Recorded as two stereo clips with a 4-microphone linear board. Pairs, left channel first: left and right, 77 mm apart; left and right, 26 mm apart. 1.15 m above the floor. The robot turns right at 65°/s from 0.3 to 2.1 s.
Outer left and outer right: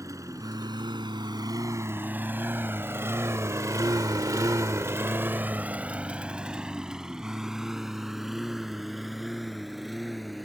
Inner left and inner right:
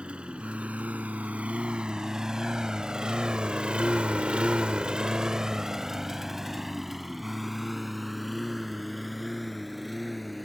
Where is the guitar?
No guitar in this recording.